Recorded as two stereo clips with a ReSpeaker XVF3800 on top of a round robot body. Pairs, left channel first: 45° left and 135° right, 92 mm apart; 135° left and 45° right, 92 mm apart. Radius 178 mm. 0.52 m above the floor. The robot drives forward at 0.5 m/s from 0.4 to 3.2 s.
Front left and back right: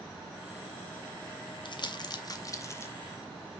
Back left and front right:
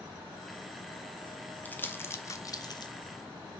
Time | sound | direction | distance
1.6 | crumpling | 65° left | 1.1 m